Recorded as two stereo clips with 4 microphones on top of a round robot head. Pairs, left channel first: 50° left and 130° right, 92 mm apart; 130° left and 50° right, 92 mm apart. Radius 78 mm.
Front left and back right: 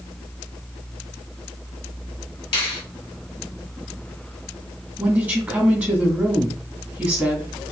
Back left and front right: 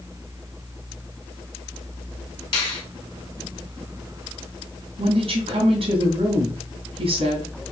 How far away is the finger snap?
About 1.2 m.